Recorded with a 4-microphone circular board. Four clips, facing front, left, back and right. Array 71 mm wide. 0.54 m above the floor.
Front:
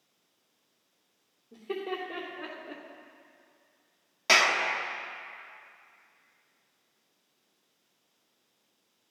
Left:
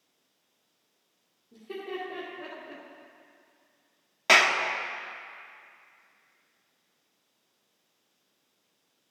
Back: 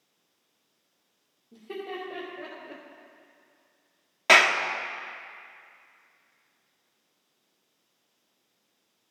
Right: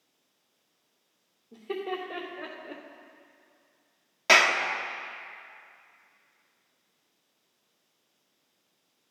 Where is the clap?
165° left, 1.0 m.